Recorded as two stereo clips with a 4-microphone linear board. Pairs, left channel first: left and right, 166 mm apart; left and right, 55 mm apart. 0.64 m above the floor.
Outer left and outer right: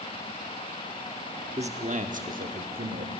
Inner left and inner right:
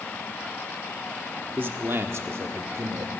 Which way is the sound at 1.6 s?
40° right (ahead or behind).